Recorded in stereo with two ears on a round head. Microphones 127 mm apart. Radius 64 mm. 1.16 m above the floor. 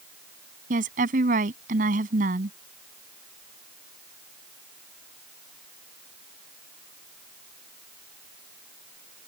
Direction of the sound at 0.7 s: 65° right (ahead or behind).